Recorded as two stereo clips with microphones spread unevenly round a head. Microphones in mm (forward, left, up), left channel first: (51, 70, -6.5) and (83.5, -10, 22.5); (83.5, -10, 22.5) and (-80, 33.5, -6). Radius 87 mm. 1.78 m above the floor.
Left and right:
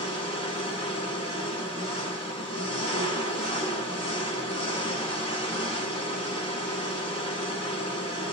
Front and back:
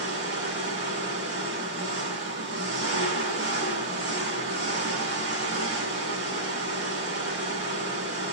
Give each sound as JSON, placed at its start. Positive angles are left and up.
{"t": 0.0, "sound": "an engine running", "azimuth_deg": 140, "distance_m": 1.8}